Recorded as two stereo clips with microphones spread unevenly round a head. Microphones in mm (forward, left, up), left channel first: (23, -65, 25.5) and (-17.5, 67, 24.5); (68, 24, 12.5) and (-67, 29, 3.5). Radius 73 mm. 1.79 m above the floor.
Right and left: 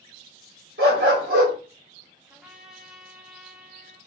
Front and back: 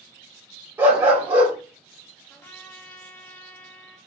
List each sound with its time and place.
0.8 s a dog barking: 100° left, 3.5 m
2.3 s a trumpet: 30° left, 1.2 m